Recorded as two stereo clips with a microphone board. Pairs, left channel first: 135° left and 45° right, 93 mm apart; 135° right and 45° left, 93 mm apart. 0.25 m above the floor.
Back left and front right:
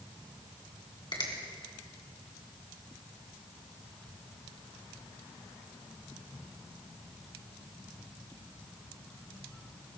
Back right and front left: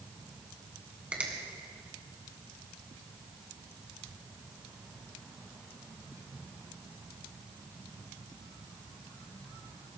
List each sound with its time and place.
1.1 s a finger snap: 120° left, 2.5 m